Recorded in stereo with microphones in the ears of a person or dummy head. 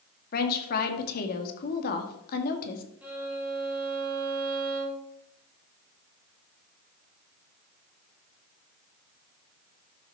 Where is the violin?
10° right (ahead or behind), 3 m.